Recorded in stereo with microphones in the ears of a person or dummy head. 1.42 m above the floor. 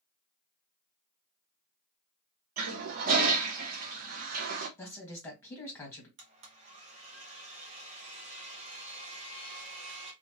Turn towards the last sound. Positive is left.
turn(degrees=-35)  # may be behind; listen again after turning